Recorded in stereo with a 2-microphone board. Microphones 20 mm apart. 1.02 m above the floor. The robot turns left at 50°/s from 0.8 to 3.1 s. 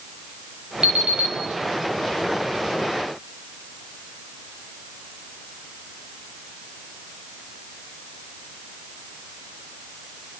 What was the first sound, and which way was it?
An alarm clock, 65° right (ahead or behind).